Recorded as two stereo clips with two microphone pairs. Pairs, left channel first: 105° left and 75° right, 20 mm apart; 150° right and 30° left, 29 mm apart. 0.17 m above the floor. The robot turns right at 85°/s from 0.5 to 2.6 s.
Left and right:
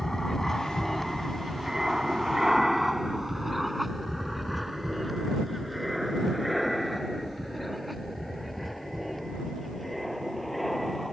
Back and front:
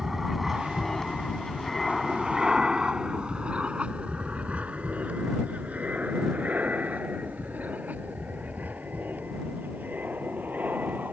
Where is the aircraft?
75° left; by 11.1 s 20° left.